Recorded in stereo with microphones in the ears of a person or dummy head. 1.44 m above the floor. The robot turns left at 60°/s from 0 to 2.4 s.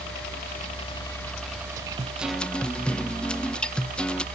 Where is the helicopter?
60° left (ahead or behind); by 4.3 s 45° right (ahead or behind).